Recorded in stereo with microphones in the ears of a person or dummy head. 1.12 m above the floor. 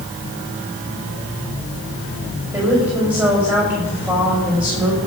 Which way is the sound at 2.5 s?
10° right (ahead or behind).